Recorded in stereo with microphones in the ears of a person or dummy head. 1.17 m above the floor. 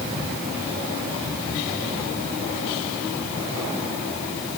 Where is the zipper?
No zipper in this recording.